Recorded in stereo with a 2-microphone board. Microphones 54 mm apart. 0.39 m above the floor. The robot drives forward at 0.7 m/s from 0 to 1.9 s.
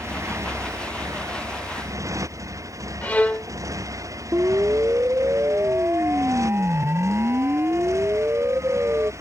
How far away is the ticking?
I don't hear ticking.